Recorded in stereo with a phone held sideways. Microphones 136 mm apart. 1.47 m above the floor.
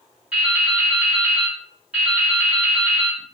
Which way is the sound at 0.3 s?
5° right (ahead or behind).